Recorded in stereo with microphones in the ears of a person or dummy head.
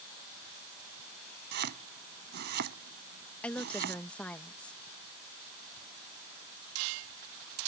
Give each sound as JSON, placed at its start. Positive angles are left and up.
{"t": 1.5, "sound": "chopping", "side_deg": -55}
{"t": 3.4, "sound": "a woman speaking", "side_deg": 10}